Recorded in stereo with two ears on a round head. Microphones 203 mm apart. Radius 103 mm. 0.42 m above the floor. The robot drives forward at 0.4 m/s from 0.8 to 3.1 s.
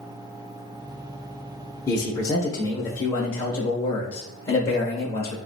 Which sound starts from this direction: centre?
A man speaking, at 1.9 s.